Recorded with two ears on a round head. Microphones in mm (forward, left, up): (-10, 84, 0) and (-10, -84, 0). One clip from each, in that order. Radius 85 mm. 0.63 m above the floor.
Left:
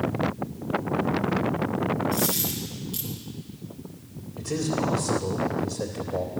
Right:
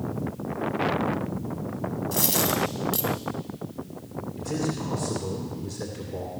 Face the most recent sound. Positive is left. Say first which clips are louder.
# left 3 dB
turn(degrees=10)  # may be behind; listen again after turning